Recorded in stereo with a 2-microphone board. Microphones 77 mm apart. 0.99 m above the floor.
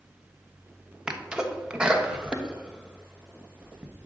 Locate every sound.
1.1 s a sneeze: 10° right (ahead or behind), 1.2 m